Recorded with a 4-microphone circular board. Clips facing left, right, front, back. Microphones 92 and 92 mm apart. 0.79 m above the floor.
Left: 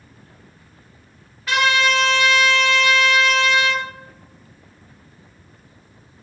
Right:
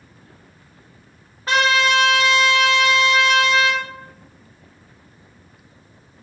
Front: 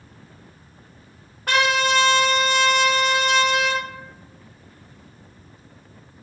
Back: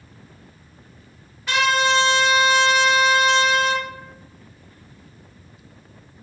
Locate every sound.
1.5 s a trumpet: 35° right, 0.7 m